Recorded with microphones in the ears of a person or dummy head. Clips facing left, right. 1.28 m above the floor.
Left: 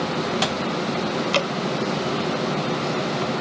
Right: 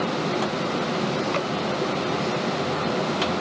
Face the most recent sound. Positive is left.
turn(degrees=55)  # may be behind; listen again after turning